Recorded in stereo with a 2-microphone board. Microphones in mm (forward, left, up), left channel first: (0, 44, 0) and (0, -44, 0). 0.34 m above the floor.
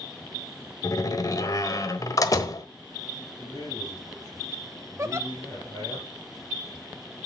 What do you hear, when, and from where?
0.8 s a door slam: 40° left (ahead or behind), 1.2 m
3.4 s a man speaking: 45° left (ahead or behind), 9.5 m
5.0 s a giggle: 35° right (ahead or behind), 1.0 m